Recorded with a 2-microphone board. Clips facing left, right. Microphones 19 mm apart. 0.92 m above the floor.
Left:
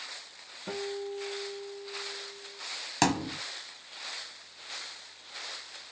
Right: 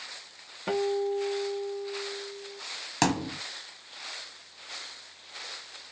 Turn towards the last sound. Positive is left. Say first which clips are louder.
# right 1 dB
turn(degrees=-5)  # may be behind; listen again after turning